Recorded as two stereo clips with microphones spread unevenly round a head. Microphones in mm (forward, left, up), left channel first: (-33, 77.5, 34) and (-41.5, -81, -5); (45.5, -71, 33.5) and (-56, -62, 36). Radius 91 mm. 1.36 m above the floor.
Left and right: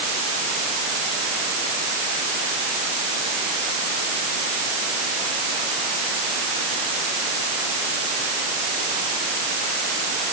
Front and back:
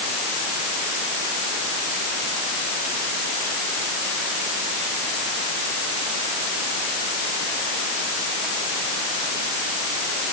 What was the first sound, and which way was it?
Only background noise.